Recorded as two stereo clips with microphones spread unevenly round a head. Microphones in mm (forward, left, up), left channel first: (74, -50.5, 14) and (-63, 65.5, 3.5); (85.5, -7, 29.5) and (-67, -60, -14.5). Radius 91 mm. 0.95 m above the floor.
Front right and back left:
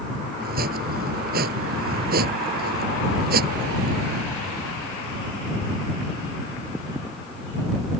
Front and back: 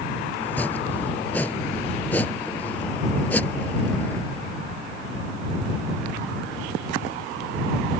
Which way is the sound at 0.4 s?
100° left.